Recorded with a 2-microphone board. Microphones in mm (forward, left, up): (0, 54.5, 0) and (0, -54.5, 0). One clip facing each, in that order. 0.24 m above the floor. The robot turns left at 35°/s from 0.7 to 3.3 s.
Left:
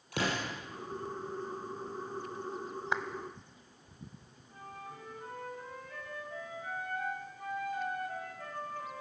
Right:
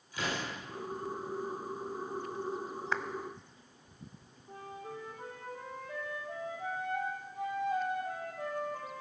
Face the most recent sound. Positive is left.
turn(degrees=-75)  # may be behind; listen again after turning